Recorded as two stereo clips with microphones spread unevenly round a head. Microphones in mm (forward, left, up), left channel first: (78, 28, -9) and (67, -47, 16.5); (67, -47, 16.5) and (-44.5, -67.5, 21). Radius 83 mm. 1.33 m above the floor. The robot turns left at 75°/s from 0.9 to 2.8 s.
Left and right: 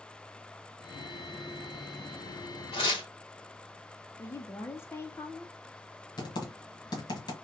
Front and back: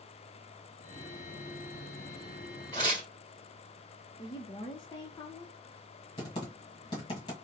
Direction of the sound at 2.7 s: 115° left.